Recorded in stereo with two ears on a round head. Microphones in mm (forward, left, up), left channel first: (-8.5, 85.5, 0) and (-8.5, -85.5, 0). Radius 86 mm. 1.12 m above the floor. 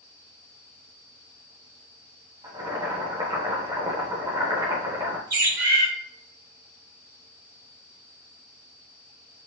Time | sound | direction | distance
2.4 | boiling | 20° right (ahead or behind) | 0.8 m
5.3 | a bird | 45° right (ahead or behind) | 1.4 m